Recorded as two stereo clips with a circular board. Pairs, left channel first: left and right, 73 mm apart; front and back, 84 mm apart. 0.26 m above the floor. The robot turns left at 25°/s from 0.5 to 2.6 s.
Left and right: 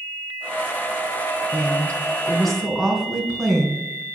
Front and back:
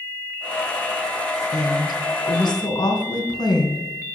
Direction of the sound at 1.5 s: 25° left.